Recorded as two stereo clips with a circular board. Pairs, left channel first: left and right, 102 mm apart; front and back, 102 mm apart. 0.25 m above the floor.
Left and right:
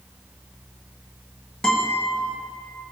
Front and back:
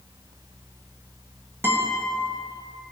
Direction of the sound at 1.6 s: 165° left.